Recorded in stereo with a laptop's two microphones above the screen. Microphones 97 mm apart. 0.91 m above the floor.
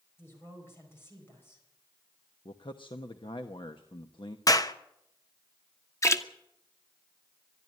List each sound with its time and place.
0.2 s a woman speaking: 25° left (ahead or behind), 5 m
2.5 s a man speaking: 60° left (ahead or behind), 1.0 m
4.5 s a clap: 40° left (ahead or behind), 0.8 m
6.0 s a splash: 30° left (ahead or behind), 1.4 m